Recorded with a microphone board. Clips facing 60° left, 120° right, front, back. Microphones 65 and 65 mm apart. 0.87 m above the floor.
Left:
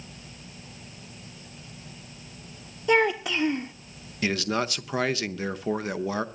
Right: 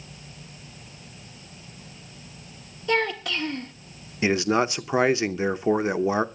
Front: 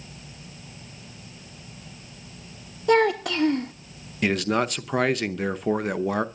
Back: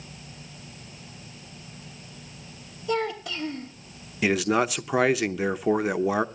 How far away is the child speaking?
About 1.0 m.